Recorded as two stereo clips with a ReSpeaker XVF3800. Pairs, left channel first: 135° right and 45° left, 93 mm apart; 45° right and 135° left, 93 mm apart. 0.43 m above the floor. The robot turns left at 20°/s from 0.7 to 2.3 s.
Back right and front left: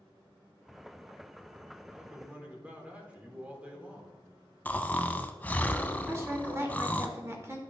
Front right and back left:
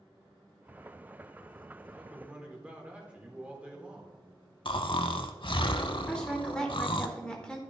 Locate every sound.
1.9 s a man speaking: 100° left, 1.3 m; by 4.1 s 90° left, 1.3 m
4.7 s snoring: 65° right, 0.5 m
6.1 s a woman speaking: 25° left, 1.3 m